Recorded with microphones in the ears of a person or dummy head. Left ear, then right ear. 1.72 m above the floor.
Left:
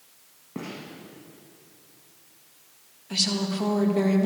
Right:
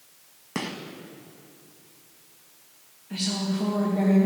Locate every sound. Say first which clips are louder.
0.6 s a gunshot: right 5 dB; 55° right (ahead or behind), 1.5 m
3.1 s a woman speaking: left 4 dB; 55° left (ahead or behind), 2.5 m